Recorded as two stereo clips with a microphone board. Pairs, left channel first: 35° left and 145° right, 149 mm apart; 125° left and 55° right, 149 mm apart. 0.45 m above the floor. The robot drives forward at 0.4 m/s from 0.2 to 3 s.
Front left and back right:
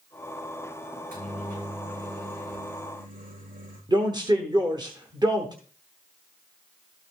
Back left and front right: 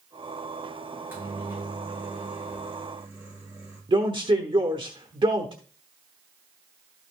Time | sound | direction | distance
0.9 | a microwave | 130° right | 6 m
3.9 | a man speaking | 95° right | 1.1 m